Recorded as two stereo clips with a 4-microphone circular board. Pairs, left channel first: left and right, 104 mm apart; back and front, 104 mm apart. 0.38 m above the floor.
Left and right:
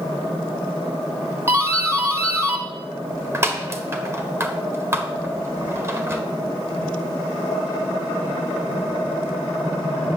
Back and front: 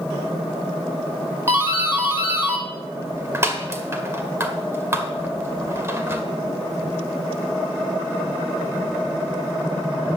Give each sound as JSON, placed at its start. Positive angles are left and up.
{"t": 1.5, "sound": "a doorbell", "azimuth_deg": -45, "distance_m": 1.6}